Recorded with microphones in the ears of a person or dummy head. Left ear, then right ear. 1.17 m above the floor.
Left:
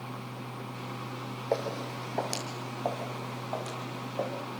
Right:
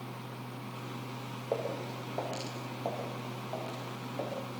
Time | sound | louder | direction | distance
1.5 | footsteps | left 3 dB | 60° left (ahead or behind) | 3.5 m